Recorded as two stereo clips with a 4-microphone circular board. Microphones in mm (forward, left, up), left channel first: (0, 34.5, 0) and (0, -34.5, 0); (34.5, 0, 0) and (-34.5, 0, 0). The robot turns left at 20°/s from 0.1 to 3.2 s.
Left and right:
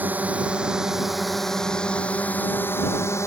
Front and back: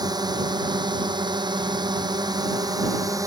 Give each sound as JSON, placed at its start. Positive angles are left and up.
{"t": 0.0, "sound": "a drone", "azimuth_deg": -155}